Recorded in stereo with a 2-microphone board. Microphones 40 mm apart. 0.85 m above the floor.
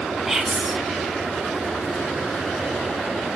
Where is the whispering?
5° right (ahead or behind), 1.2 m.